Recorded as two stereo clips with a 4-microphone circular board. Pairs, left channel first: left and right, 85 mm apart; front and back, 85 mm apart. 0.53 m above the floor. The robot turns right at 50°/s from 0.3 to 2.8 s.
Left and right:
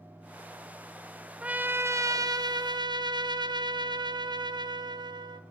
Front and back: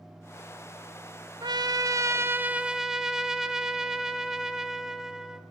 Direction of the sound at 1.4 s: 165° right.